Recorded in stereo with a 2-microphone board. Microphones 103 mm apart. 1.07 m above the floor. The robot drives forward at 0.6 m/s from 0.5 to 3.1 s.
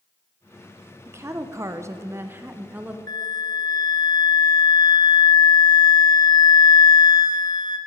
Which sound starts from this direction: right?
A woman speaking, at 1.1 s.